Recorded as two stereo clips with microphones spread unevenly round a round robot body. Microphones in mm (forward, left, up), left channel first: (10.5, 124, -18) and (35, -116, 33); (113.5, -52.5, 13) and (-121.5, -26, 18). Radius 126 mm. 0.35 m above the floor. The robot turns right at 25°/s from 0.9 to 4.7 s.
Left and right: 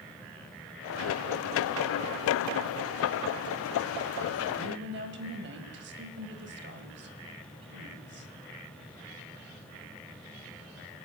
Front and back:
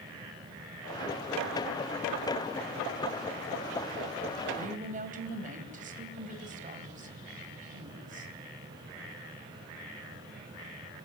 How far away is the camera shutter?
I don't hear a camera shutter.